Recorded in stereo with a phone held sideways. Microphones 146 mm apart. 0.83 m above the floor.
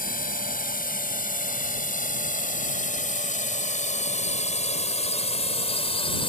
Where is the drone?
75° left (ahead or behind); by 6.3 s 35° left (ahead or behind).